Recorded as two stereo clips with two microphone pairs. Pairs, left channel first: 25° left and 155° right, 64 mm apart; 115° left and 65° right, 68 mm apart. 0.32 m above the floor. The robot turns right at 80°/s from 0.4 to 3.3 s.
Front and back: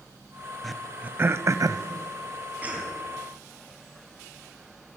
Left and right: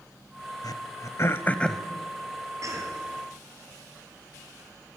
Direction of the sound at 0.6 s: 105° left.